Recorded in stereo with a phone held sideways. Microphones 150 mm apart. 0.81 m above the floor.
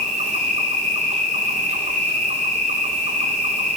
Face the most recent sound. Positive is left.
turn(degrees=-50)  # may be behind; listen again after turning